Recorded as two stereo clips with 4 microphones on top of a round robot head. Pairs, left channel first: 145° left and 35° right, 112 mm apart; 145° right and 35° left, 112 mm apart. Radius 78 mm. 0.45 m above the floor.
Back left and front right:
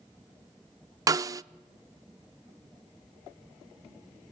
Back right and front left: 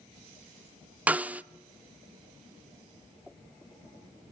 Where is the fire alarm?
I don't hear a fire alarm.